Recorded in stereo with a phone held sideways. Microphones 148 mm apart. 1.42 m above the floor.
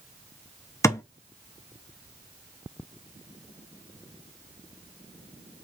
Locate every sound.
0.8 s a thud: 20° left (ahead or behind), 0.8 m